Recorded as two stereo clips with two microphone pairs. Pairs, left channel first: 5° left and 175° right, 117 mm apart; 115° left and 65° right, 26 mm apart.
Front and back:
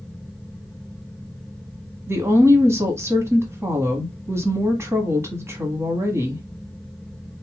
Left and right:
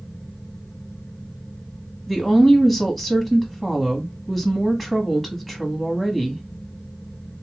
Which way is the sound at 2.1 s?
175° right.